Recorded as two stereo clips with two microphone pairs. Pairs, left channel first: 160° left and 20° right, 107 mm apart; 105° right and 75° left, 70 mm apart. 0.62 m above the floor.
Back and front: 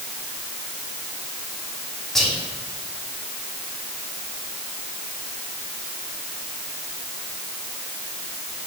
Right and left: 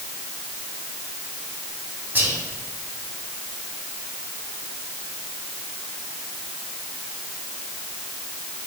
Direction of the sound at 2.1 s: 80° left.